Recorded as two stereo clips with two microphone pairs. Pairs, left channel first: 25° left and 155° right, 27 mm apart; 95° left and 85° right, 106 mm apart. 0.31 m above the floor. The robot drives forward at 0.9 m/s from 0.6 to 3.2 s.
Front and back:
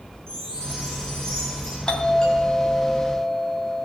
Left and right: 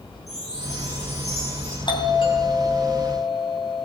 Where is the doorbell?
70° left, 3 m; by 3.9 s 95° left, 3 m.